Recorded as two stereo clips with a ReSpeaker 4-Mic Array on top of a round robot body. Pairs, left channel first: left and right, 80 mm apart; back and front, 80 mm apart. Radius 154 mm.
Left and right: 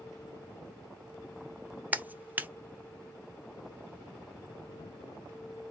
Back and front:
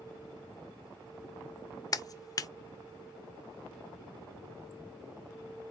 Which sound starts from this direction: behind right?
A clap, at 1.9 s.